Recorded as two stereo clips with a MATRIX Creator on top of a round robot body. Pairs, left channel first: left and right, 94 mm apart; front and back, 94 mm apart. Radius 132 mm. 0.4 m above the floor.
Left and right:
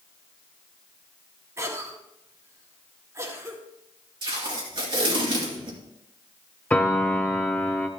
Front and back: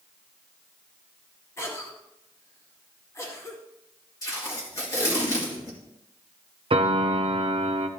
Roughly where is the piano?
Behind.